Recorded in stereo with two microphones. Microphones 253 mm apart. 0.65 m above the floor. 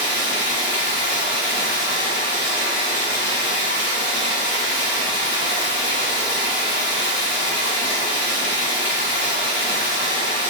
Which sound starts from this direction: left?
Running water, at 0.0 s.